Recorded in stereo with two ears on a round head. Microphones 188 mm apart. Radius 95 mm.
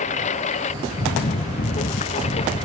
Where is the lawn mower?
30° left (ahead or behind); by 2.7 s 25° left (ahead or behind).